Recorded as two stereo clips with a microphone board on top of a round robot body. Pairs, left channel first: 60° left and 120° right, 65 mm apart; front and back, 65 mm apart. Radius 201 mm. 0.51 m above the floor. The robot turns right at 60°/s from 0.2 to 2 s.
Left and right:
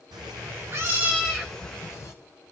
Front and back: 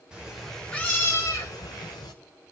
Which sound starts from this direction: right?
A cat meowing, at 0.1 s.